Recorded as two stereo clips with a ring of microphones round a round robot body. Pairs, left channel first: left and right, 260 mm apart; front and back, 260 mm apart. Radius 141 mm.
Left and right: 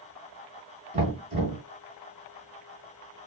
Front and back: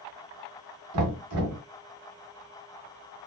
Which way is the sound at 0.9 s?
155° right.